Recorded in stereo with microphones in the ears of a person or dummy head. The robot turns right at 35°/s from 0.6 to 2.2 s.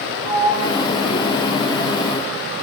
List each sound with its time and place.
0.2 s a sliding door: 30° right (ahead or behind), 1.9 m; by 2.2 s 25° left (ahead or behind), 1.9 m